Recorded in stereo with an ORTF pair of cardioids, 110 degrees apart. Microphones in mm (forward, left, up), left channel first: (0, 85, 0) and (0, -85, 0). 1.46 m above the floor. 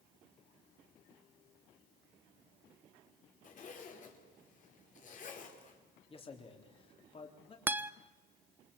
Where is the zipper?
45° left, 5 m.